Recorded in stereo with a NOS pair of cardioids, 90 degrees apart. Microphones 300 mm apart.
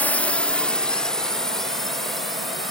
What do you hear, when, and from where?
0.0 s a drone: 5° left; by 2.7 s straight ahead